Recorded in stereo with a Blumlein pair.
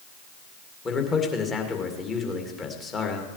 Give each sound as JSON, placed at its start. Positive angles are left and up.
{"t": 0.8, "sound": "a man speaking", "azimuth_deg": 20, "distance_m": 2.0}